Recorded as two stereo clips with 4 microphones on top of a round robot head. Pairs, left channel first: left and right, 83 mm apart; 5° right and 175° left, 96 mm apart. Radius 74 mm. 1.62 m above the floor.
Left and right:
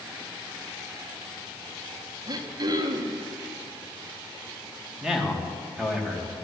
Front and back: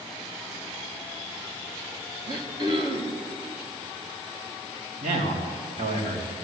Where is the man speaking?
175° right, 3 m.